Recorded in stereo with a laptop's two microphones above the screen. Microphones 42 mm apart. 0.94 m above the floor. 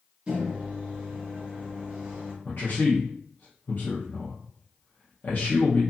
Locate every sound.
0.3 s a microwave: 25° right (ahead or behind), 1.2 m
2.5 s a man speaking: 45° left (ahead or behind), 0.7 m